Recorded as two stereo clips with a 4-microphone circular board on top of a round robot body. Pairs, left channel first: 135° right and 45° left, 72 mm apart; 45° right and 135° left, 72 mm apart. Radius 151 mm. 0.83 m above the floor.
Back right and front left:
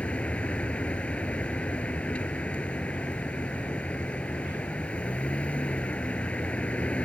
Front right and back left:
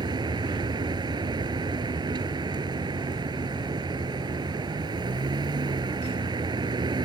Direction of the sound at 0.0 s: 150° left.